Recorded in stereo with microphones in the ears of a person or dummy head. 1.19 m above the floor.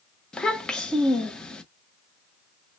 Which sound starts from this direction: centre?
A child speaking, at 0.3 s.